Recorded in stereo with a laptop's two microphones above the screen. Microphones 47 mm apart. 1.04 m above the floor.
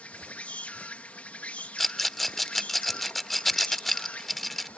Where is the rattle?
5° left (ahead or behind).